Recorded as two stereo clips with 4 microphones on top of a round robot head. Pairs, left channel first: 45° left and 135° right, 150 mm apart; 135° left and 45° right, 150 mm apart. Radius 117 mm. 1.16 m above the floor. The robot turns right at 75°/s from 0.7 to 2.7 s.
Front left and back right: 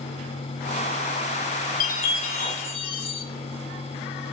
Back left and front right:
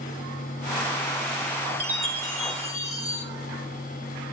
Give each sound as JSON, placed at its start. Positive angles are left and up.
{"t": 1.8, "sound": "a chime", "azimuth_deg": 0, "distance_m": 3.0}